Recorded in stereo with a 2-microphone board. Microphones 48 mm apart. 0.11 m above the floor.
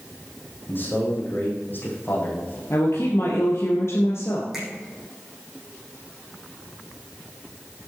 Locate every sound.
0.7 s a man speaking: 40° left (ahead or behind), 5.5 m
2.7 s a woman speaking: 60° left (ahead or behind), 3 m
4.5 s a finger snap: 5° right (ahead or behind), 5 m